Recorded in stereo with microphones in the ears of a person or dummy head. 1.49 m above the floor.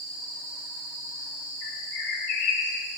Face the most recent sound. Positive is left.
turn(degrees=70)  # may be behind; listen again after turning